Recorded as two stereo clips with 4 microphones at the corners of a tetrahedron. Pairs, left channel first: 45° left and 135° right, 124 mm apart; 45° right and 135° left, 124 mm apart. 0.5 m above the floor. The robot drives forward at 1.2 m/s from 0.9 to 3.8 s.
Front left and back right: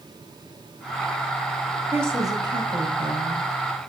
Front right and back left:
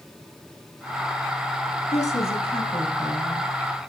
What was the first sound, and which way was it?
A woman speaking, 65° right.